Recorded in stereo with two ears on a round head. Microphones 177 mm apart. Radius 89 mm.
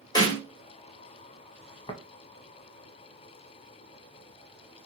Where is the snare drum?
20° left (ahead or behind), 1.7 m.